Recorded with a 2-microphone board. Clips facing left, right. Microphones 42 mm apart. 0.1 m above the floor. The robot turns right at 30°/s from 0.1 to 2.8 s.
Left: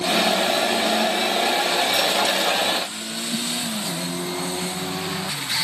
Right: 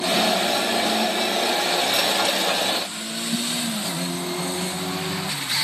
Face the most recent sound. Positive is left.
No sound to turn to.